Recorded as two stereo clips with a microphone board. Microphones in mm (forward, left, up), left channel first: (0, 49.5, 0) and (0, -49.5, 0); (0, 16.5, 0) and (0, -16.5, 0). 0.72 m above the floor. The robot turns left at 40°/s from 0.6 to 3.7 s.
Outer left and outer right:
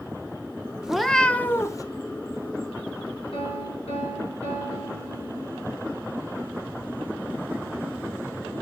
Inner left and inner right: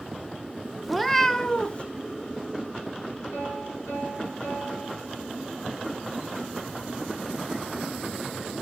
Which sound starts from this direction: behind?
A cat meowing, at 0.8 s.